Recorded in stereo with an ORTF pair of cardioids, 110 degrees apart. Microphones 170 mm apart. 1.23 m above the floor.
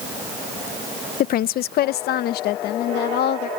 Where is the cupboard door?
No cupboard door in this recording.